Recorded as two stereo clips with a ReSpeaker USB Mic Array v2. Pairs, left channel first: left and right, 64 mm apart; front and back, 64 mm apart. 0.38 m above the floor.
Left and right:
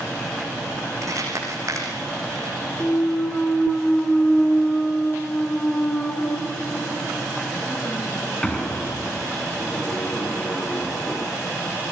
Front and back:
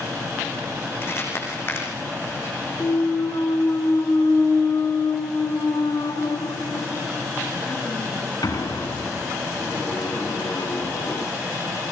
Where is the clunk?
15° left, 4 m.